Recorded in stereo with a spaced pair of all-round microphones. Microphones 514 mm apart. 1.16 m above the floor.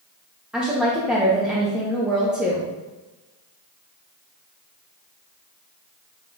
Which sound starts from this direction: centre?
A woman speaking, at 0.5 s.